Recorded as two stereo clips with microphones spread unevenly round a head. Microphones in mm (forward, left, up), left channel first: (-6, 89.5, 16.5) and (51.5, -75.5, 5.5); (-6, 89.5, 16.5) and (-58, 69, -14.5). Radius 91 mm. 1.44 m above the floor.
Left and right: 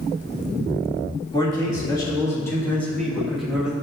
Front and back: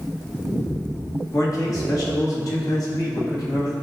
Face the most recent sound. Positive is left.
turn(degrees=15)